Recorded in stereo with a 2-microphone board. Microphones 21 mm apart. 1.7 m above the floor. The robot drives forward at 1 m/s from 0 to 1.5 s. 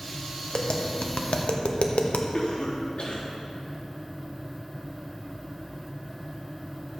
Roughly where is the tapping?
Left.